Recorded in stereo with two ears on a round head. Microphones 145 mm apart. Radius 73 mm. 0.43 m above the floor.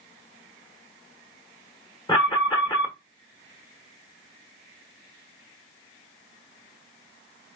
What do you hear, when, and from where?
2.1 s an alarm: 25° left (ahead or behind), 1.0 m